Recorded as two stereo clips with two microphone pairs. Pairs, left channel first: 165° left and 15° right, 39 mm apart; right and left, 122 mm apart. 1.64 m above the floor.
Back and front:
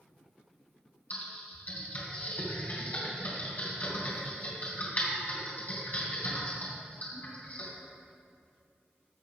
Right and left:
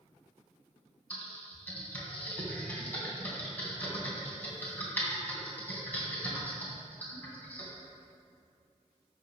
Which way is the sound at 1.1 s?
160° right.